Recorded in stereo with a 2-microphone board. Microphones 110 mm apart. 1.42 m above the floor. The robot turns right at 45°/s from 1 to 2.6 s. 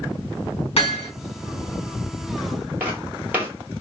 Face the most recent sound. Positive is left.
turn(degrees=-15)  # may be behind; listen again after turning